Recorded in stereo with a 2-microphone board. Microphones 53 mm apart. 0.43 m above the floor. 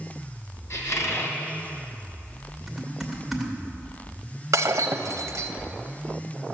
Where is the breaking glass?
80° right, 0.8 m.